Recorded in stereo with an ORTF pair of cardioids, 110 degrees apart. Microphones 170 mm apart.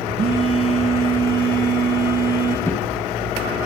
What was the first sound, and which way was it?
A phone buzzing, 35° right.